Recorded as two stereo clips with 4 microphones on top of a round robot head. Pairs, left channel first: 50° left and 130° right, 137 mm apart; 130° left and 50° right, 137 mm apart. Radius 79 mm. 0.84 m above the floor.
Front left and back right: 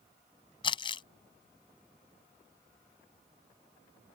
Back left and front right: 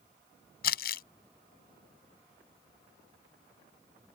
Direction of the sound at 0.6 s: 110° left.